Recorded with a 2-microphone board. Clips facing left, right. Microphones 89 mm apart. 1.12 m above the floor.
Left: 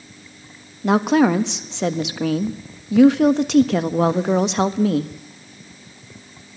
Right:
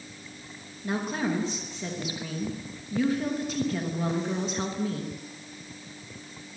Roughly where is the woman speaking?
Left.